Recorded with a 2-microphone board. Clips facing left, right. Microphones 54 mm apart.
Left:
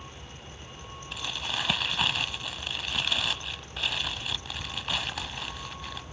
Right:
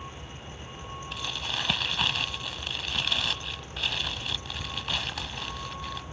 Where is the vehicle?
20° right (ahead or behind).